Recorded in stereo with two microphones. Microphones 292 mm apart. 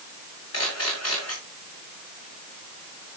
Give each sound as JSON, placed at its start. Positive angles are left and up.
{"t": 0.5, "sound": "a camera shutter", "side_deg": 55, "distance_m": 6.5}